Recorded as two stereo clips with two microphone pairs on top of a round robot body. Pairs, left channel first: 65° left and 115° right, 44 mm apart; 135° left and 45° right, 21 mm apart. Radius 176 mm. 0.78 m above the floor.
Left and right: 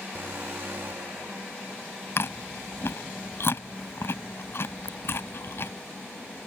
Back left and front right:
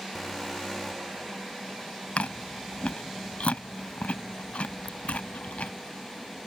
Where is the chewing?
110° left.